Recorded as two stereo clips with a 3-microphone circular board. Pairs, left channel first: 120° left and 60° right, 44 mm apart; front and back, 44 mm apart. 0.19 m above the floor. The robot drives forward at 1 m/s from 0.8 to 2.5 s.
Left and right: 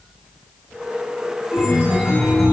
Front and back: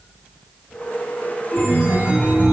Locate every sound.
1.5 s a chime: 105° left, 7.5 m; by 2.5 s 115° left, 7.5 m